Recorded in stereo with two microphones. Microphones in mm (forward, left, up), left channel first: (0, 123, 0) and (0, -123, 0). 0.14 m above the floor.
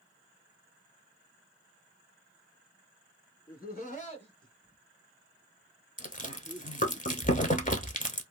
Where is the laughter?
40° left (ahead or behind), 1.3 m; by 7.0 s 40° right (ahead or behind), 1.4 m.